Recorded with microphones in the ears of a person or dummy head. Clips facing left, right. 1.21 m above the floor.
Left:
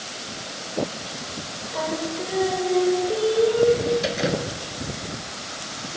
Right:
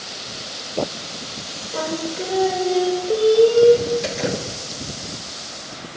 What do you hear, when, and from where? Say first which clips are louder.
1.7 s singing: right 2 dB; 35° right (ahead or behind), 3 m
4.0 s dripping: even; centre (ahead or behind), 2.5 m